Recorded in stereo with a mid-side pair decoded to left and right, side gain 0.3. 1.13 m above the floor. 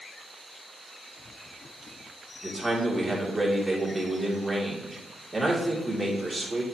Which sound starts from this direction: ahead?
A man speaking, at 2.4 s.